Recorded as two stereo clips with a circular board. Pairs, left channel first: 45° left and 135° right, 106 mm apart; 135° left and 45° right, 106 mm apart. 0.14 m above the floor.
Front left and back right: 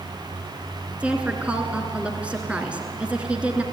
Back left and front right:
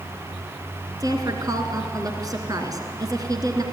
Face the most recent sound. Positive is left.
turn(degrees=-65)